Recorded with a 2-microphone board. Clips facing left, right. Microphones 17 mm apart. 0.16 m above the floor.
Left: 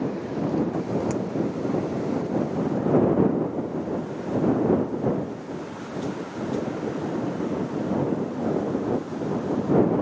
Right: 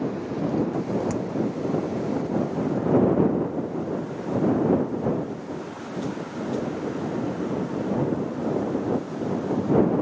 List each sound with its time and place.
1.1 s hammering: 15° left (ahead or behind)